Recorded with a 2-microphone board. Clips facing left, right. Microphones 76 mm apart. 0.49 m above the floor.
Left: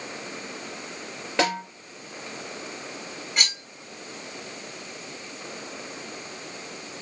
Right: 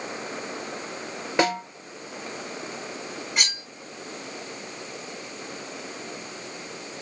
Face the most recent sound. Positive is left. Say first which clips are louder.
# left 1 dB
turn(degrees=-5)  # may be behind; listen again after turning